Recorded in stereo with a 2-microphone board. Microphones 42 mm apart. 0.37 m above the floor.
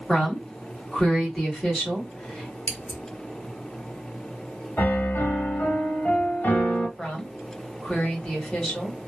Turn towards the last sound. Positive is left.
turn(degrees=20)  # may be behind; listen again after turning